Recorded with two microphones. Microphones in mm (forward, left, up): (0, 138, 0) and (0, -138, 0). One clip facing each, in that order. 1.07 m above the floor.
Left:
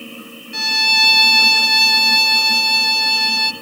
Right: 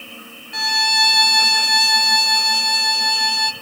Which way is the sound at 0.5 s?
35° left (ahead or behind).